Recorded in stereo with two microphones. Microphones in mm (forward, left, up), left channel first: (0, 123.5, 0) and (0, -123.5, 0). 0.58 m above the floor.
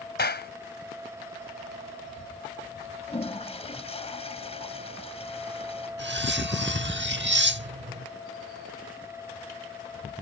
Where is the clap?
45° left (ahead or behind).